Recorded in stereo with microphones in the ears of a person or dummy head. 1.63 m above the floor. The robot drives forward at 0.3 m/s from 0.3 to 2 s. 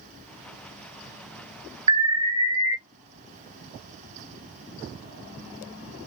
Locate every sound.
1.9 s an alarm: 30° right (ahead or behind), 1.1 m